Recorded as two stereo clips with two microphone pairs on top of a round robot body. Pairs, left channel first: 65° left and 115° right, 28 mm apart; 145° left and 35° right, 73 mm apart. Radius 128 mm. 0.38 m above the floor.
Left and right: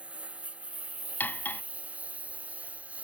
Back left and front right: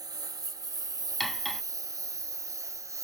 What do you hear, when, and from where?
0.0 s a lawn mower: 65° right; by 3.0 s 80° right
1.2 s cutlery clinking: 55° left